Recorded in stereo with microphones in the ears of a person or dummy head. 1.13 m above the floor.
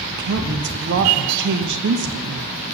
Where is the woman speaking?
60° right (ahead or behind), 0.8 m.